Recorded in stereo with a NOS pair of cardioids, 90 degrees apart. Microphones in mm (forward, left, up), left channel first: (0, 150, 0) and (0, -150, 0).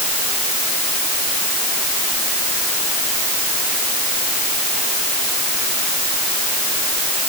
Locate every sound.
Only background noise.